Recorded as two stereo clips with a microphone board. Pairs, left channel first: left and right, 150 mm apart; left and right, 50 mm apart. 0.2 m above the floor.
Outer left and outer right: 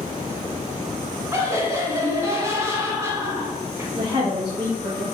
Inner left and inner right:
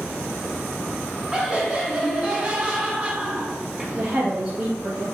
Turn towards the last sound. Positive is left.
turn(degrees=-30)  # may be behind; listen again after turning